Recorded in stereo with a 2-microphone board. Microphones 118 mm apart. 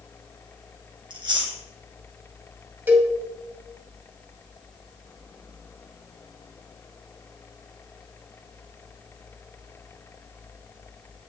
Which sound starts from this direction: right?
Chewing, at 1.1 s.